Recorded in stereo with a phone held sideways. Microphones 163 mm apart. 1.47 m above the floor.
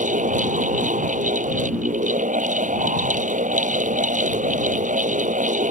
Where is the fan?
60° right (ahead or behind).